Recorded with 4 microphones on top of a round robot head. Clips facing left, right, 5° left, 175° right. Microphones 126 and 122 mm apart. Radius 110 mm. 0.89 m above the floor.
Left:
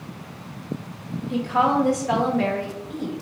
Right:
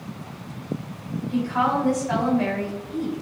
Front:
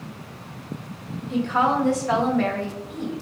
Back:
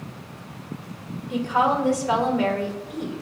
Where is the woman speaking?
105° left, 1.0 m.